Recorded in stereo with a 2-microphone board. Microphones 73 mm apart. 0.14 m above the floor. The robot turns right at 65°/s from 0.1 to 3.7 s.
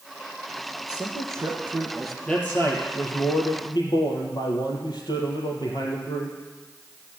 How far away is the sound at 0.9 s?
About 2.5 m.